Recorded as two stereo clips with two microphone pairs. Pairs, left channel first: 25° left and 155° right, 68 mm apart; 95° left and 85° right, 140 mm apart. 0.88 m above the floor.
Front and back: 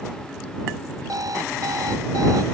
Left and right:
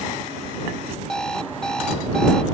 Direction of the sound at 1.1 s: Straight behind.